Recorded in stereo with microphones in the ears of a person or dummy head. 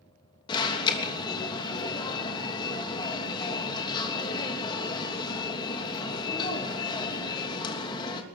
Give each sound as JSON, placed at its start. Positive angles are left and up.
{"t": 0.5, "sound": "an alarm", "side_deg": 25, "distance_m": 3.0}